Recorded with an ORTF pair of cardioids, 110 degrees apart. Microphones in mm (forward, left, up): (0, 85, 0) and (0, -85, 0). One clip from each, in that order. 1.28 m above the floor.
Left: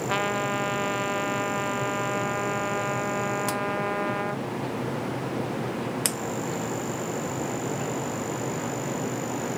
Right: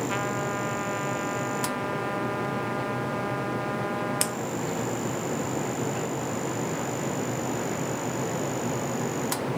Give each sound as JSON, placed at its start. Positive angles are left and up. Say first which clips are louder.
{"t": 0.1, "sound": "a trumpet", "louder": "left 3 dB", "azimuth_deg": 30}